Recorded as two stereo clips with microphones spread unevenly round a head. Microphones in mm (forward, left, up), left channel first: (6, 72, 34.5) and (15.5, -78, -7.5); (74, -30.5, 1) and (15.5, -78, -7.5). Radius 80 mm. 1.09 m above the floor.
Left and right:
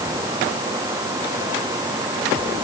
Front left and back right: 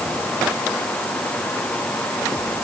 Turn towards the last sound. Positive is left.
No sound to turn to.